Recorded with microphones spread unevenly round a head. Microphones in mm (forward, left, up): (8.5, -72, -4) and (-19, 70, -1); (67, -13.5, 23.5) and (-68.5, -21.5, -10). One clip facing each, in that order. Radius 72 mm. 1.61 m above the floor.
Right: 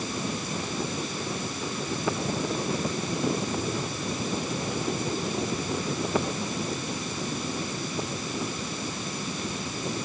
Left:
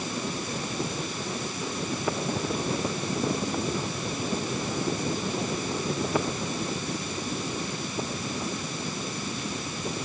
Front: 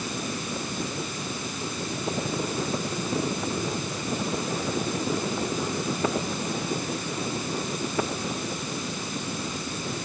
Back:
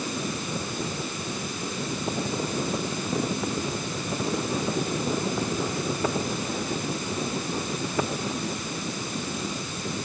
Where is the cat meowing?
I don't hear a cat meowing.